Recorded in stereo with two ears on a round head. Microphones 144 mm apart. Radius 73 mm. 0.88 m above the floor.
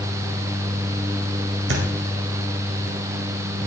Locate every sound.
1.7 s a thud: 70° right (ahead or behind), 1.7 m